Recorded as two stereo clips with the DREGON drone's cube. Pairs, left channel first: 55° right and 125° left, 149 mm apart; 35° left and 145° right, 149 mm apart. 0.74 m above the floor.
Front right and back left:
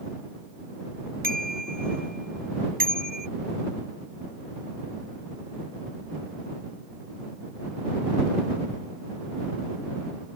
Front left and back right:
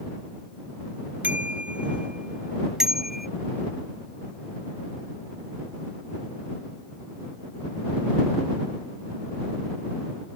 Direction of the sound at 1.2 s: 135° left.